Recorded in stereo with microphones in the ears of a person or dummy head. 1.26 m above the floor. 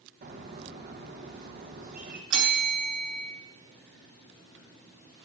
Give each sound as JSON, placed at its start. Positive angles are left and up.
{"t": 0.2, "sound": "a bird", "side_deg": -45, "distance_m": 1.3}
{"t": 2.3, "sound": "a bell", "side_deg": -70, "distance_m": 4.0}